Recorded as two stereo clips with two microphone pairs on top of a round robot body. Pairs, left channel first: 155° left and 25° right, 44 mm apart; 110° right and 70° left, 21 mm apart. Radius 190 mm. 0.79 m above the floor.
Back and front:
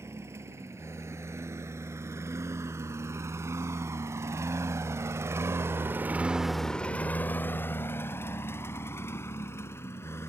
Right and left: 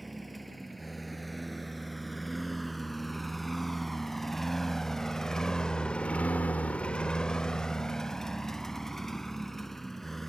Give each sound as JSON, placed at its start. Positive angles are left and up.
{"t": 0.0, "sound": "a lawn mower", "azimuth_deg": -20}